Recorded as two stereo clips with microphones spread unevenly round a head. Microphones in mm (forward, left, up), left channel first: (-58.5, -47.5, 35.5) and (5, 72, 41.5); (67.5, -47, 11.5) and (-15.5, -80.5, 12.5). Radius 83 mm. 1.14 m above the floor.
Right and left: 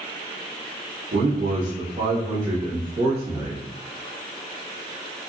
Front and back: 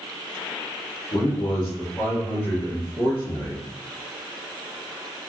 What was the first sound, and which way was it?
A man speaking, 45° left.